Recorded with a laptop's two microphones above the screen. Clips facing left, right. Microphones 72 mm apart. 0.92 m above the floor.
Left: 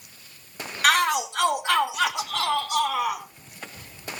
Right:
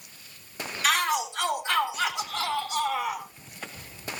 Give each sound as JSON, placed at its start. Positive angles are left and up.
{"t": 0.8, "sound": "a shout", "side_deg": 60, "distance_m": 1.7}